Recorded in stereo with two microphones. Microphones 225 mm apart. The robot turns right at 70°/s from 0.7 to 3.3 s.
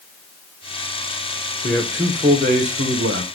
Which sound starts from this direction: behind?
A man speaking, at 1.6 s.